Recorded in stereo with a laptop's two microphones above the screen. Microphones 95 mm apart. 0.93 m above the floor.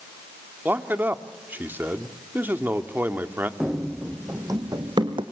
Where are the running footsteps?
10° right (ahead or behind), 2.0 m; by 5.2 s 55° right (ahead or behind), 2 m.